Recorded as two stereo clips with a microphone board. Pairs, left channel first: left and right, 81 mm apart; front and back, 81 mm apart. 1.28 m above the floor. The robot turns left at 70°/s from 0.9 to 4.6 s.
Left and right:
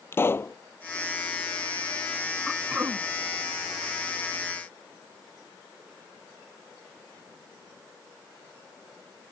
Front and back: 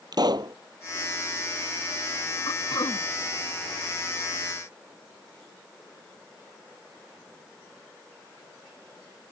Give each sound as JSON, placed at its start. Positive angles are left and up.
{"t": 0.1, "sound": "a pop", "azimuth_deg": 150}
{"t": 2.5, "sound": "throat clearing", "azimuth_deg": 0}